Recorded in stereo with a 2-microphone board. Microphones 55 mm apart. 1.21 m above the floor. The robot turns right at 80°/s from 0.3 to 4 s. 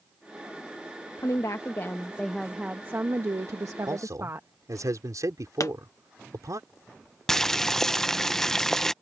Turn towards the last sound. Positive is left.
turn(degrees=10)  # may be behind; listen again after turning